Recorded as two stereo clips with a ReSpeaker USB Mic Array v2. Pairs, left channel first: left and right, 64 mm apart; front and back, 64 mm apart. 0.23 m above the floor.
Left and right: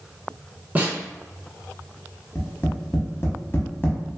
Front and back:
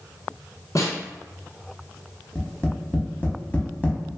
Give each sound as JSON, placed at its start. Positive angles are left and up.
{"t": 0.8, "sound": "a snare drum", "azimuth_deg": -25, "distance_m": 1.0}
{"t": 2.4, "sound": "tapping", "azimuth_deg": 55, "distance_m": 0.7}